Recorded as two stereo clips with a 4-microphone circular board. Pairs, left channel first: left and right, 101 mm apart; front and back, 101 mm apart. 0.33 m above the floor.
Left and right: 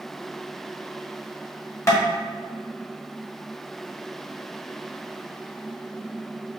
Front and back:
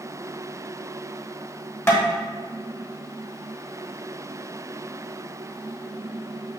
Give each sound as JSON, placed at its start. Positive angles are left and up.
{"t": 1.9, "sound": "tapping", "azimuth_deg": 50, "distance_m": 1.2}